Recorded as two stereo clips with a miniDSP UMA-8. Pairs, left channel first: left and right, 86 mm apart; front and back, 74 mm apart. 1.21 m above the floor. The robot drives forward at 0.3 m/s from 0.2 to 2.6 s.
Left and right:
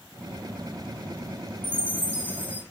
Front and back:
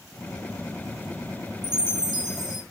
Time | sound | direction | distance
1.6 | a chime | 160° right | 3 m